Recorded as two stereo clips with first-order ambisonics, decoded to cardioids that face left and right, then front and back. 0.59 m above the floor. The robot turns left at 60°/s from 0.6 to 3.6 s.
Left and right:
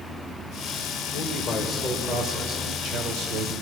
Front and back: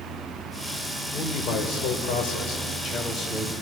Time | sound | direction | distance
1.1 | a man speaking | 55° left | 2 m